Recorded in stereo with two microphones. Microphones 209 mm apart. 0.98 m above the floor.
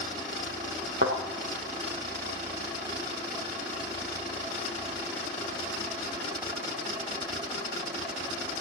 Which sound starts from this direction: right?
A thud, at 1.0 s.